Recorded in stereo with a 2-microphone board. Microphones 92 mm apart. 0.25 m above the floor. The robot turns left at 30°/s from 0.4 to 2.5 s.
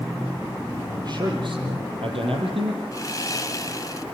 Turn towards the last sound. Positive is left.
turn(degrees=40)  # may be behind; listen again after turning